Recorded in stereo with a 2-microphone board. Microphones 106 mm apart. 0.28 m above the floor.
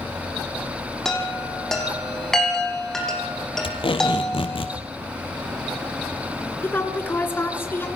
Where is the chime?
5° left (ahead or behind), 5.5 m.